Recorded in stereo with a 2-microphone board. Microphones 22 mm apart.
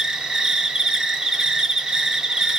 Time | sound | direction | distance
0.0 | an insect | 35° right (ahead or behind) | 0.8 m